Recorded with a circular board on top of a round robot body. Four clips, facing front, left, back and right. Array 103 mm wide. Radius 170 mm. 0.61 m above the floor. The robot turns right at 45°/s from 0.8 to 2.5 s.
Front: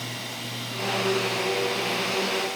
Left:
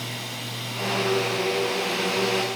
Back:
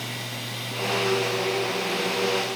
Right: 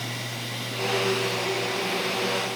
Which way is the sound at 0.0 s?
105° right.